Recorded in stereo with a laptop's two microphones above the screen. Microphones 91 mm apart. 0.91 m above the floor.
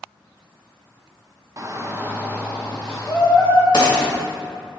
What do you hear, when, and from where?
1.6 s a shout: 40° right (ahead or behind), 0.6 m; by 3.6 s 5° left (ahead or behind), 1.3 m
3.7 s a gunshot: 55° left (ahead or behind), 1.7 m